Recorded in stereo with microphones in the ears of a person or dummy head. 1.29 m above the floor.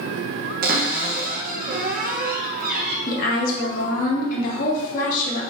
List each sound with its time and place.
0.6 s a cupboard door: 50° right (ahead or behind), 0.7 m
3.1 s a woman speaking: 50° left (ahead or behind), 1.3 m